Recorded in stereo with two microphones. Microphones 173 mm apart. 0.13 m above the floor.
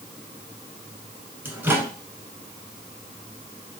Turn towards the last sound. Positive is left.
turn(degrees=-10)  # may be behind; listen again after turning